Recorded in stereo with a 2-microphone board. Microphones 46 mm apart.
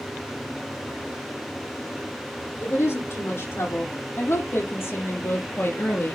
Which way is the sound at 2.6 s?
70° left (ahead or behind).